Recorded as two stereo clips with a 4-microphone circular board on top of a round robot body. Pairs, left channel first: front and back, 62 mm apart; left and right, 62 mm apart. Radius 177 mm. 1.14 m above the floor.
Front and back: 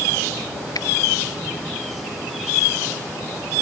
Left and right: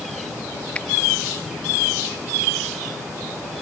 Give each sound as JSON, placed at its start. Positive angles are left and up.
{"t": 0.8, "sound": "a finger snap", "azimuth_deg": 15}